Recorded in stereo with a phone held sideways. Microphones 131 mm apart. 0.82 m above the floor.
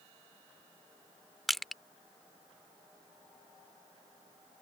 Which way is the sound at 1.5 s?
Centre (ahead or behind).